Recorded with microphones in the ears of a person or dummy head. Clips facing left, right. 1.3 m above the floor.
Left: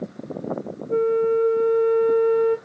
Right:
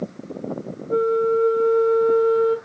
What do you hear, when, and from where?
0.9 s a flute: centre (ahead or behind), 1.8 m